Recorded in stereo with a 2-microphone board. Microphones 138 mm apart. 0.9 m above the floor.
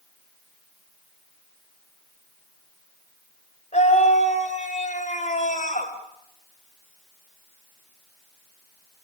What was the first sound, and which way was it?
A scream, 55° left (ahead or behind).